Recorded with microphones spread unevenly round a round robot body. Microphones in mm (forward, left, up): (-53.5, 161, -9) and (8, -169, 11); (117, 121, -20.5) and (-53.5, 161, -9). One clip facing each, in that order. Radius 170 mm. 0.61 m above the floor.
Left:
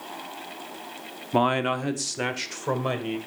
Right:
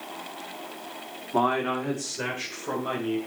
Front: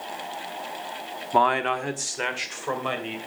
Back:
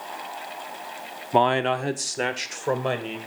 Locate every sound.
1.3 s a man speaking: 100° left, 0.9 m; by 3.2 s 120° left, 2.5 m